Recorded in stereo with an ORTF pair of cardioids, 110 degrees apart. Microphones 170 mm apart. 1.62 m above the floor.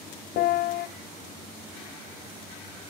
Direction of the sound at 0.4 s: 70° left.